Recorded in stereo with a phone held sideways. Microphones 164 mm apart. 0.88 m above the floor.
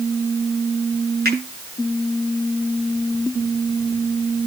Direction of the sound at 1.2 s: 70° right (ahead or behind).